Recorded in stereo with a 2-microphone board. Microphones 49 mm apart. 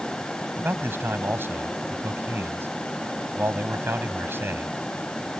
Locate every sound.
0.6 s a man speaking: 50° right (ahead or behind)